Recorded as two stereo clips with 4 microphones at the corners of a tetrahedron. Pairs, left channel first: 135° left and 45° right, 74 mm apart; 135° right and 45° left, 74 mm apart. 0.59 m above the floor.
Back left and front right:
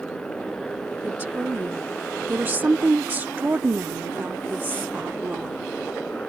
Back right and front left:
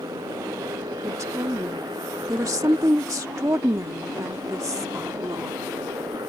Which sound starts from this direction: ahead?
A woman speaking, at 1.0 s.